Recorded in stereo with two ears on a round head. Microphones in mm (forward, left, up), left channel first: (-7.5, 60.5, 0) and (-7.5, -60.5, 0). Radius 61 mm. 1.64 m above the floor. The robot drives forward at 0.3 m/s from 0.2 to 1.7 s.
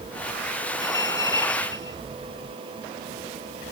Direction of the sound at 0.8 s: 25° left (ahead or behind).